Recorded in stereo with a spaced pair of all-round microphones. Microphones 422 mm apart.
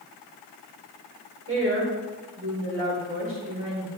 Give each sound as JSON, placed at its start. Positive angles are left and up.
{"t": 1.5, "sound": "a woman speaking", "side_deg": -30, "distance_m": 5.5}